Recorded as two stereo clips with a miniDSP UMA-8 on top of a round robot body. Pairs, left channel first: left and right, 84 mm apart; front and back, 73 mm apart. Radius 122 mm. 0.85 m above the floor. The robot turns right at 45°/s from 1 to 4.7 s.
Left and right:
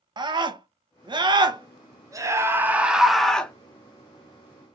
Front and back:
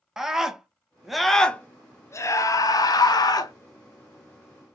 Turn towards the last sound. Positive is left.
turn(degrees=70)